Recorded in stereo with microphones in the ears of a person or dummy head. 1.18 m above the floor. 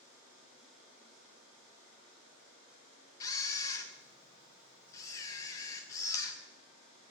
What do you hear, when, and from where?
3.2 s a camera shutter: 20° left (ahead or behind), 0.8 m